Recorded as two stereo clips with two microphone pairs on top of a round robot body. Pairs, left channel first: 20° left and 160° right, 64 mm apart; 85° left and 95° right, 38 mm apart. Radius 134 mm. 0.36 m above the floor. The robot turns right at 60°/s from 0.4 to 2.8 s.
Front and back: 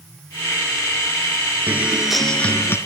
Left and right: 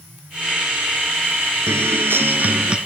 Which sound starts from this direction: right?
A guitar, at 1.7 s.